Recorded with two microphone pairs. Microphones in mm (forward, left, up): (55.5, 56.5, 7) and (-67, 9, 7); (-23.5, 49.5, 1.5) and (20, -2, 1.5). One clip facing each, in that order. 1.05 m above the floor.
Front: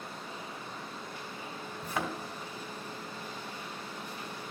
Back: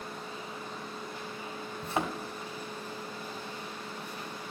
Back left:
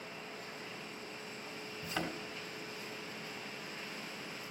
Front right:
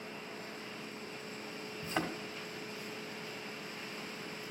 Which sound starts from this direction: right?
A thud, at 1.8 s.